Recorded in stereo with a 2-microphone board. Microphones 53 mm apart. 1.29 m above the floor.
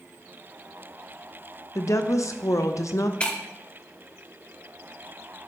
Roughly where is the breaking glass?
Centre.